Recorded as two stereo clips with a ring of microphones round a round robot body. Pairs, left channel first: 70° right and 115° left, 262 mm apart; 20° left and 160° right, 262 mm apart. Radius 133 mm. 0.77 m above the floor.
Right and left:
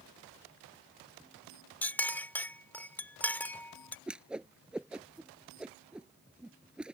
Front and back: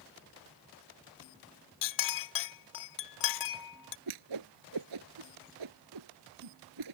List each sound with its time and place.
1.8 s a clink: 15° left
4.1 s a whoosh: 160° right